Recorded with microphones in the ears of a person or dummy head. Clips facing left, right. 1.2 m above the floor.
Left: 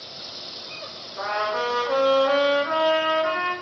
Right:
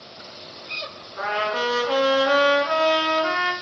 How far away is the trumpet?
About 0.9 m.